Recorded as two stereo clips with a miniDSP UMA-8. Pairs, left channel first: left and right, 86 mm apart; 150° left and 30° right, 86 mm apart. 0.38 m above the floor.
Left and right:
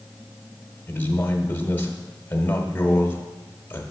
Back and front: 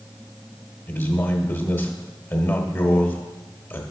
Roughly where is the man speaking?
Behind left.